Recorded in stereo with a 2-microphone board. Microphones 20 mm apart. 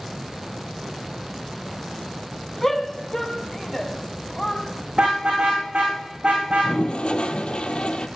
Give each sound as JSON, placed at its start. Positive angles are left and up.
{"t": 2.6, "sound": "a shout", "side_deg": 15, "distance_m": 2.0}
{"t": 4.9, "sound": "a car horn", "side_deg": -55, "distance_m": 6.0}
{"t": 6.5, "sound": "a toilet flushing", "side_deg": 75, "distance_m": 0.9}